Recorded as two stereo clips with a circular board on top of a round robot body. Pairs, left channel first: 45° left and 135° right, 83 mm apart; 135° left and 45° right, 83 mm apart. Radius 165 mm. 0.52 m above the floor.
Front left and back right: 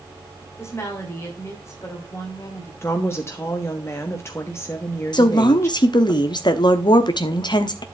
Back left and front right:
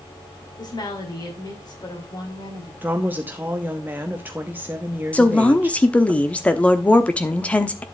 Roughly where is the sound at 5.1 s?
Ahead left.